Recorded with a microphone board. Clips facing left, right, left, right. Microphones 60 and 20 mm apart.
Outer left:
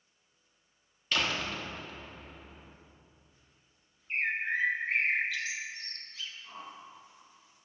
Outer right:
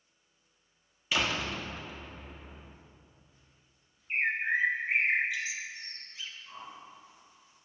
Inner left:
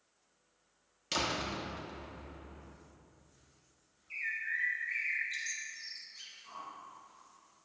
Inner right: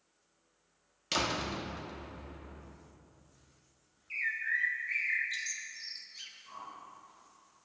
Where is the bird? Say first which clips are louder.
Outer right 2 dB, inner right 3 dB; 20° right (ahead or behind), 1.0 m.